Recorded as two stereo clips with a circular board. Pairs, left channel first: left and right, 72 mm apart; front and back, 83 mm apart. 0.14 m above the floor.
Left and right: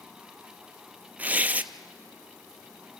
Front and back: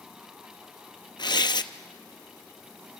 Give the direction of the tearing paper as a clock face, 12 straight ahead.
1 o'clock.